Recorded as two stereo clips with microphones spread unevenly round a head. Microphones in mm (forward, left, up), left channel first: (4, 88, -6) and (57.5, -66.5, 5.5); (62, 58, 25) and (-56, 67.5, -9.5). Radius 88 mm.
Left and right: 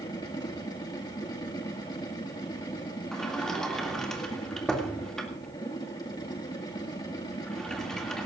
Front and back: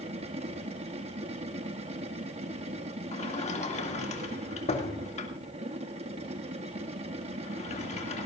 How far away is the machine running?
About 1.7 m.